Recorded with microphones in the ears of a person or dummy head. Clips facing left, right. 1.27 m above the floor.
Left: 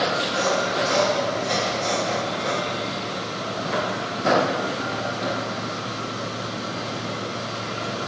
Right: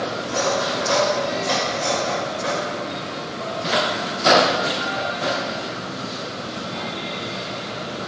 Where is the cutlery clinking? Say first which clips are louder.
Right 1 dB; 75° right (ahead or behind), 2.5 m.